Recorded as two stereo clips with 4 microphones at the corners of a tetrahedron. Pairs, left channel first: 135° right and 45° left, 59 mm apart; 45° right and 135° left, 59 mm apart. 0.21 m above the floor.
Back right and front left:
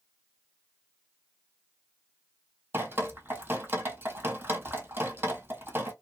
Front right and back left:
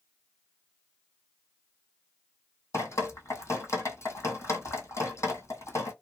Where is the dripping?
10° right, 1.2 m.